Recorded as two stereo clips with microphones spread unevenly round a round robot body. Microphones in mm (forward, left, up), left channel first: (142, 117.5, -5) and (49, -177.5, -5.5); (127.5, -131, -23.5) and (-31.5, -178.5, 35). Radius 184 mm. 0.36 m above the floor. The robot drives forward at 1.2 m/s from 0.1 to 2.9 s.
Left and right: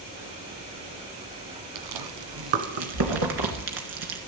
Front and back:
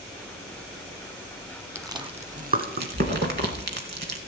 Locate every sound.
1.8 s chewing: 80° right, 1.3 m; by 4.2 s 135° right, 1.7 m